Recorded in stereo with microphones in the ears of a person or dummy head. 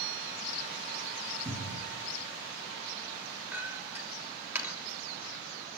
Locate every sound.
1.4 s a cupboard door: 10° left (ahead or behind), 6 m
3.5 s a clink: 10° right (ahead or behind), 3 m